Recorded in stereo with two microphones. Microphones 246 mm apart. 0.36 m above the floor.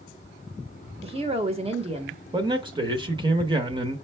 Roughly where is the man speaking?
Centre.